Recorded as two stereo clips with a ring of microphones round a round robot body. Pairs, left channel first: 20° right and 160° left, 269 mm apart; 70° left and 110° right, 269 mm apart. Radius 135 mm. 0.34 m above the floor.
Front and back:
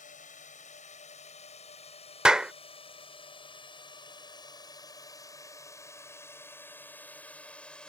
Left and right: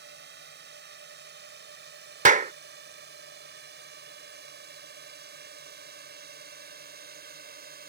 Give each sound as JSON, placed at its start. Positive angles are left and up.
{"t": 0.0, "sound": "a drone", "azimuth_deg": -75}
{"t": 2.2, "sound": "a clap", "azimuth_deg": -120}